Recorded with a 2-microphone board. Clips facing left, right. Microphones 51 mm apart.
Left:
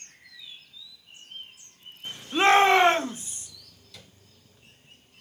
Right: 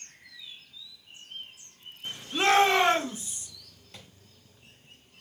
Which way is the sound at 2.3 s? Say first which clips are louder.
Left 4 dB; 25° left (ahead or behind).